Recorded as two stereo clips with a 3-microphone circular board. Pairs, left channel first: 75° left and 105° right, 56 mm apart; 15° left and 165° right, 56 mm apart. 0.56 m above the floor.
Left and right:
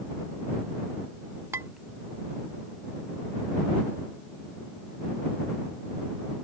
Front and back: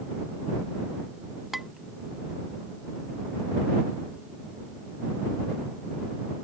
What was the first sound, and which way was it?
Dishes clattering, 80° right.